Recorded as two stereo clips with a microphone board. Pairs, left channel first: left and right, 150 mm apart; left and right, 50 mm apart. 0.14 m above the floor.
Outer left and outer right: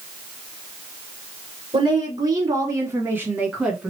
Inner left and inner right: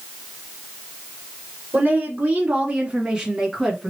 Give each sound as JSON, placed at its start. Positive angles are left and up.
{"t": 1.7, "sound": "a woman speaking", "side_deg": -35, "distance_m": 1.9}